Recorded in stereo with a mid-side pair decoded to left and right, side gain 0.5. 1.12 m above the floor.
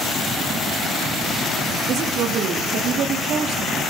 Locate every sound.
1.9 s a woman speaking: 70° right, 1.6 m